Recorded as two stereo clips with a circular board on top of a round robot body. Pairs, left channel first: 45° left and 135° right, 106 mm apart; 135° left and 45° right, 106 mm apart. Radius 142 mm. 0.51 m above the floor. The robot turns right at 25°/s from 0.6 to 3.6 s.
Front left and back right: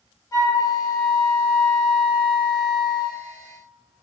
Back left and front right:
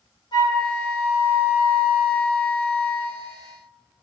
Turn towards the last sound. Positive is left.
turn(degrees=175)